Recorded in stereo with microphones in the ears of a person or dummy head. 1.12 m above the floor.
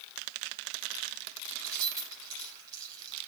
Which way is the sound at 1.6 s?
20° right (ahead or behind).